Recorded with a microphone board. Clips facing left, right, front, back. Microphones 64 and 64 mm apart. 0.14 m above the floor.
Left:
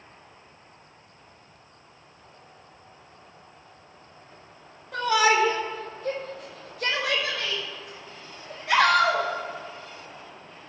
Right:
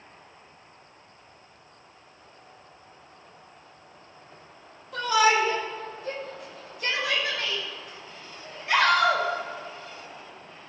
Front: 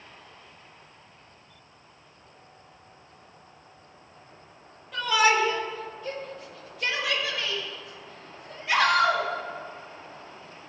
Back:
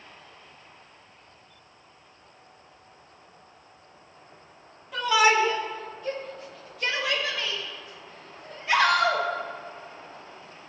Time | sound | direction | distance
4.9 | a shout | 95° left | 3.5 m